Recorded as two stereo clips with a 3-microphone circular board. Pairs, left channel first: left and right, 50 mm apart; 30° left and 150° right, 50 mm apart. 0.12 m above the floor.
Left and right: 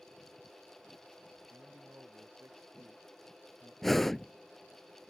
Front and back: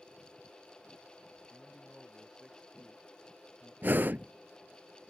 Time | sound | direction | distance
1.5 | a man speaking | 55° right | ?
3.8 | breathing | 175° left | ?